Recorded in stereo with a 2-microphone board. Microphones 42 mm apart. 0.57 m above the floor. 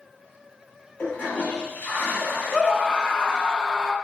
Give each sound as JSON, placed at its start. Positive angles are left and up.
{"t": 1.0, "sound": "a toilet flushing", "side_deg": 45, "distance_m": 1.8}
{"t": 2.5, "sound": "a scream", "side_deg": 15, "distance_m": 0.6}